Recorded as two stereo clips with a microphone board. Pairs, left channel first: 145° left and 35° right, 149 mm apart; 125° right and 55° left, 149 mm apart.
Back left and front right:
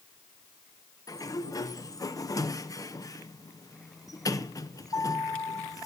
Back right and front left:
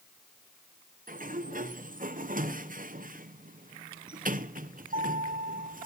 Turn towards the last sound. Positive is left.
turn(degrees=80)